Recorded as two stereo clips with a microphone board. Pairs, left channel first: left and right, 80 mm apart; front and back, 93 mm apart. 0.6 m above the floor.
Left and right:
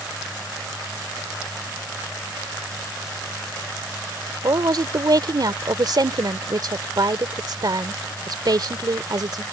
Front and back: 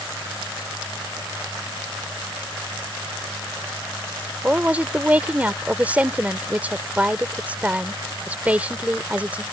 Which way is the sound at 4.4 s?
105° right.